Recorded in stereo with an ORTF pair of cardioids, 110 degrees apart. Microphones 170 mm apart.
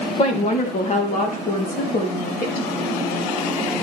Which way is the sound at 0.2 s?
40° left.